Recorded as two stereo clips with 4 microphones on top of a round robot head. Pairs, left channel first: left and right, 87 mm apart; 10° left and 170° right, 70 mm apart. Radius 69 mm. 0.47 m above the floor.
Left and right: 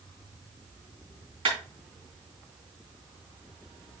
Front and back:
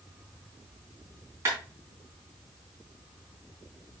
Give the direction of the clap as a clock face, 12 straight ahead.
4 o'clock.